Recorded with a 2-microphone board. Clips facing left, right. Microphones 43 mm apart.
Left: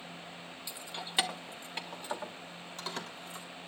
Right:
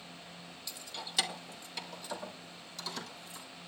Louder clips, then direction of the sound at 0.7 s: Left 1 dB; 20° left (ahead or behind).